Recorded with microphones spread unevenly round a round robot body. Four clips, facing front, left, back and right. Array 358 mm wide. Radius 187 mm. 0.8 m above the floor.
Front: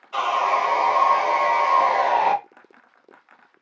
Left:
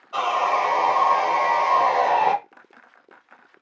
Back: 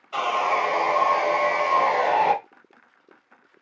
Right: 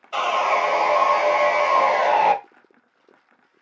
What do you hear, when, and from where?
0.1 s sawing: 120° right, 1.1 m